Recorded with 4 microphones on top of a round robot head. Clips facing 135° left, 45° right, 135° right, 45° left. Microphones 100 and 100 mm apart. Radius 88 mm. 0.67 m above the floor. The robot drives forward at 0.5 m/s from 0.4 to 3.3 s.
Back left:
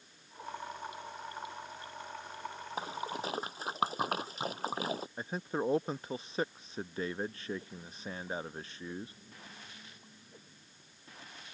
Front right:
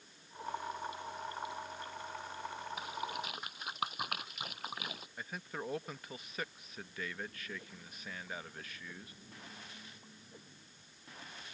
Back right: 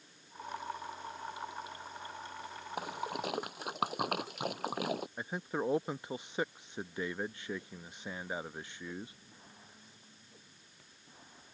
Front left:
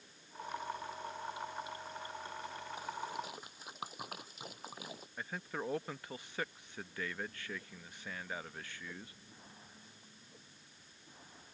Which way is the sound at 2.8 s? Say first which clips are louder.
Back left 5 dB, back right 5 dB; 165° right.